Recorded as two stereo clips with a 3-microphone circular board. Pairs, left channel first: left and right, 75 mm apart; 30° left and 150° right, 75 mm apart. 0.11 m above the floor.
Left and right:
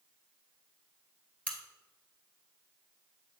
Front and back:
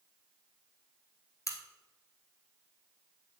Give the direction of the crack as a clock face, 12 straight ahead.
11 o'clock.